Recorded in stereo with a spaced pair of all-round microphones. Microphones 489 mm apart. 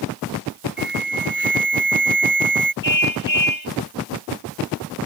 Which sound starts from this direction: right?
An alarm, at 0.8 s.